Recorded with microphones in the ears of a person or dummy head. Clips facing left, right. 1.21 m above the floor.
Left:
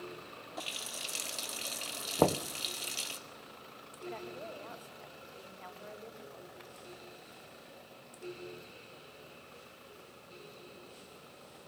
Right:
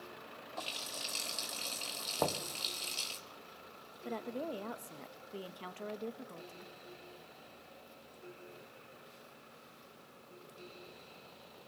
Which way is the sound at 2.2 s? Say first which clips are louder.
Left 8 dB; 55° left (ahead or behind).